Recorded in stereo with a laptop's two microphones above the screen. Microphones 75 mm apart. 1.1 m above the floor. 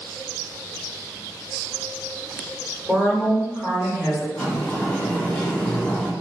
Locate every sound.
2.9 s a woman speaking: 20° right (ahead or behind), 1.4 m
4.3 s a sliding door: 15° left (ahead or behind), 0.9 m